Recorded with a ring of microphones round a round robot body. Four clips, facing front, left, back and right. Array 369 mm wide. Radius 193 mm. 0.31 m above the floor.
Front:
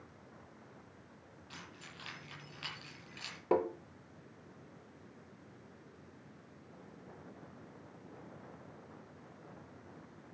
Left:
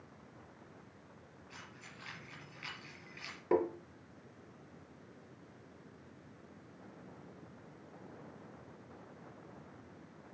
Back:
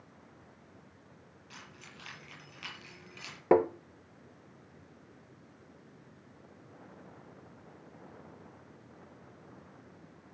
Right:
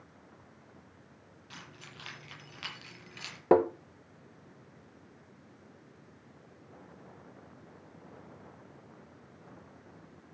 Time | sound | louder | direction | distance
1.5 | keys jangling | right 4 dB, even | 85° right | 7.5 m
3.5 | tapping | right 8 dB, back 7 dB | 125° right | 0.7 m